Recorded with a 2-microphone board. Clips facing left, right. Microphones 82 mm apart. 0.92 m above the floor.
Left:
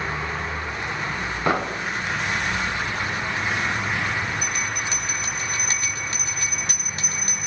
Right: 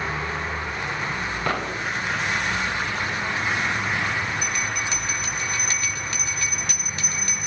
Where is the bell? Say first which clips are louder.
Even; 30° left (ahead or behind), 6 m.